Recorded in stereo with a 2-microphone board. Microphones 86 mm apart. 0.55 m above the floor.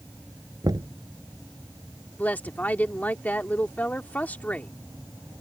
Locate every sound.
0.6 s knocking: 55° right (ahead or behind)
2.2 s a woman speaking: 20° left (ahead or behind)